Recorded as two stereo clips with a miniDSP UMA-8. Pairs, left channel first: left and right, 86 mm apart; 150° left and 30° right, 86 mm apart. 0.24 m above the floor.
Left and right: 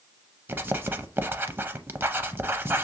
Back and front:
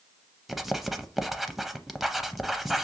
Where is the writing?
115° right, 0.5 m.